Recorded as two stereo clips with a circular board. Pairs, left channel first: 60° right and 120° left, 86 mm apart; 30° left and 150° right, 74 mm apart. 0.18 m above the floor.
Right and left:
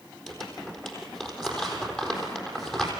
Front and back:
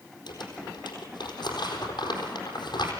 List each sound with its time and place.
0.3 s crumpling: 20° left, 4 m